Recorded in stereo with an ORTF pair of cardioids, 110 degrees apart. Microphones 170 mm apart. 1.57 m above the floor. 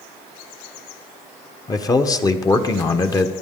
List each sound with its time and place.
1.7 s a man speaking: 20° left, 1.1 m